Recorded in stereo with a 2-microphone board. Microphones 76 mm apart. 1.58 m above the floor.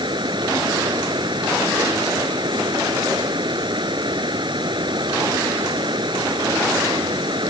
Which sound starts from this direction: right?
Running water, at 0.0 s.